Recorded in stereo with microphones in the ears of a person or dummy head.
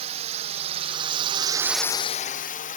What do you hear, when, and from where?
0.0 s a drone: 30° right (ahead or behind); by 2.8 s 30° left (ahead or behind)